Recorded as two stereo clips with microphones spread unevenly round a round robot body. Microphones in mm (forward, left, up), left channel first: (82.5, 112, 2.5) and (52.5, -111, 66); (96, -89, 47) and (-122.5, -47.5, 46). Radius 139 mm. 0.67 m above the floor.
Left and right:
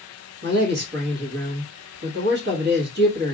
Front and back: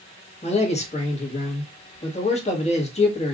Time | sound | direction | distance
0.4 | a man speaking | 60° right | 1.3 m